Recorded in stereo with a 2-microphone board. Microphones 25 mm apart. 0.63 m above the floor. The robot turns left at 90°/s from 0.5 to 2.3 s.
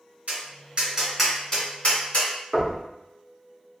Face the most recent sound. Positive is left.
turn(degrees=0)  # may be behind; listen again after turning